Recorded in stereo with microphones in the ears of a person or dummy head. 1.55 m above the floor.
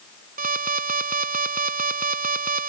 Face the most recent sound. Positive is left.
turn(degrees=-40)  # may be behind; listen again after turning